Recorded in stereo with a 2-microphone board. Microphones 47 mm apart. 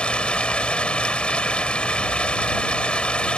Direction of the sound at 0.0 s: 20° left (ahead or behind).